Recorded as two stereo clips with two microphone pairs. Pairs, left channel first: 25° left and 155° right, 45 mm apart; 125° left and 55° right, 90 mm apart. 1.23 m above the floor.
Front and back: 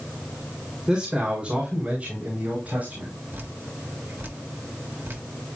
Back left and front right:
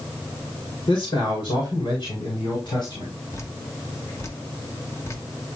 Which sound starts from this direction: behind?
Dripping, at 3.3 s.